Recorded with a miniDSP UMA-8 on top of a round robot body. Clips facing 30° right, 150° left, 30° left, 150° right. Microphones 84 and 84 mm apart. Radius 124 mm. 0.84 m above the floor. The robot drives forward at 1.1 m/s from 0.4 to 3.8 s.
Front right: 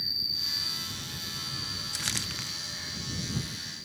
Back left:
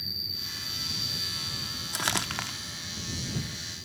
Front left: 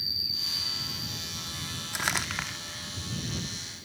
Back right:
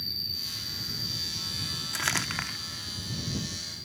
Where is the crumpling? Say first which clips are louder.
Back left 9 dB, even; 110° left; by 2.6 s 125° left.